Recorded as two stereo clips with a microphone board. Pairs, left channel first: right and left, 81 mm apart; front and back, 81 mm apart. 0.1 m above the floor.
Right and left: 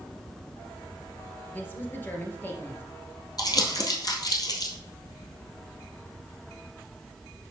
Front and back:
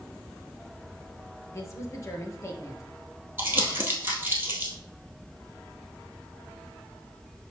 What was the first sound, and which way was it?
A woman speaking, 35° right.